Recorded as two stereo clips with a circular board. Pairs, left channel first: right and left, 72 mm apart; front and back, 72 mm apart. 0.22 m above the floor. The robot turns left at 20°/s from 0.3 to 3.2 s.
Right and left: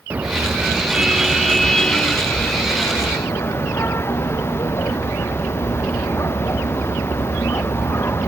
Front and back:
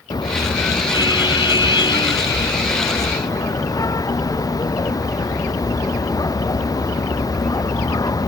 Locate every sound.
0.1 s a car horn: 20° left; by 8.3 s 35° right